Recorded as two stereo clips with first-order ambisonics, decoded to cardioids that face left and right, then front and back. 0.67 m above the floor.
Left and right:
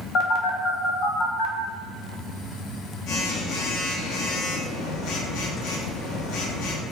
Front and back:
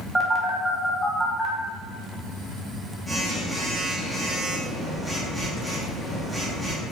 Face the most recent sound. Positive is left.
turn(degrees=95)